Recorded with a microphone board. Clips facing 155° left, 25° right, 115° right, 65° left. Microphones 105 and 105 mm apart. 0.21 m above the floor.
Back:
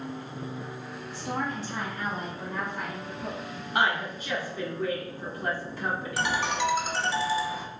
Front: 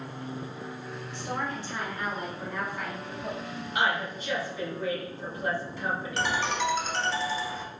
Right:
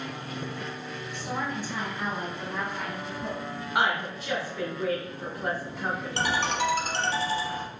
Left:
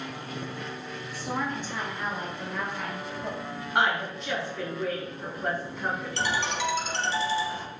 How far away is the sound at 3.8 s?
About 1.7 m.